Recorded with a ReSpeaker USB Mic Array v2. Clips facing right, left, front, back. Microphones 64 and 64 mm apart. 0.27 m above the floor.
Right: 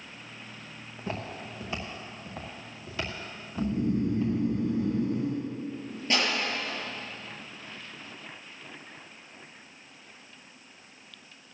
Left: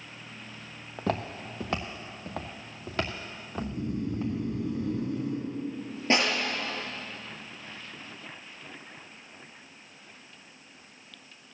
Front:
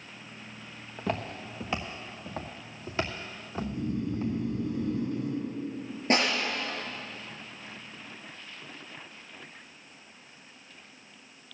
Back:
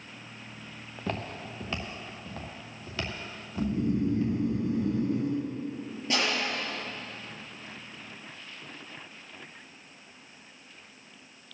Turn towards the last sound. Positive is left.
turn(degrees=35)